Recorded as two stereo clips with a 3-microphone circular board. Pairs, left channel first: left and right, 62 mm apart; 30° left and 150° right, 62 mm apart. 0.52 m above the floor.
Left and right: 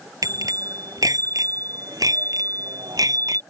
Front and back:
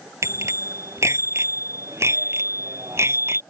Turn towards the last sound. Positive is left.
turn(degrees=-105)